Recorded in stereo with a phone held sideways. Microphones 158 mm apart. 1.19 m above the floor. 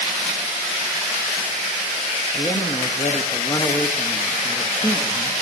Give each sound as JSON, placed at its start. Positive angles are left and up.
{"t": 2.3, "sound": "a man speaking", "side_deg": 20, "distance_m": 2.0}